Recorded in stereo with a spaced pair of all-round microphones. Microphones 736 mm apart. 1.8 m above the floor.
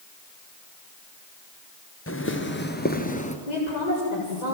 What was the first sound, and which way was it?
Footsteps, 20° left (ahead or behind).